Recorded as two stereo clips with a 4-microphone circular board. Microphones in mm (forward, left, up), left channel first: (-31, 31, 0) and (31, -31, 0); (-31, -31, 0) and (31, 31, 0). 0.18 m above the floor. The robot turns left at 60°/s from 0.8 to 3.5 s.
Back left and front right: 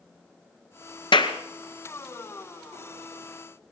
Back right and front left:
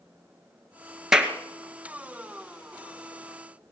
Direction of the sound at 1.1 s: 130° left.